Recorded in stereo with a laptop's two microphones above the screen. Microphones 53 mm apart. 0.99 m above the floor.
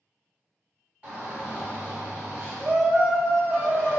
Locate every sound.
1.0 s a shout: 30° right (ahead or behind), 1.5 m